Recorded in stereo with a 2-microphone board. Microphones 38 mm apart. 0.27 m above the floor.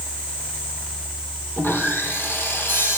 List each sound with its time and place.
1.6 s sawing: 85° left, 1.9 m